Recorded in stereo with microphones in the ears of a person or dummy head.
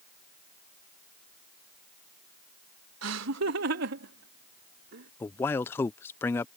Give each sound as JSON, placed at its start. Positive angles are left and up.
{"t": 3.0, "sound": "laughter", "side_deg": -80}
{"t": 5.2, "sound": "a man speaking", "side_deg": 10}